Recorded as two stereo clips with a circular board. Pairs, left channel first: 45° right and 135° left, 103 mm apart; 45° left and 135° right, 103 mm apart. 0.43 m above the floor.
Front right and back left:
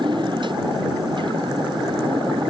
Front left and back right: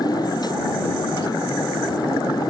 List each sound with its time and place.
0.0 s a motorcycle: 95° left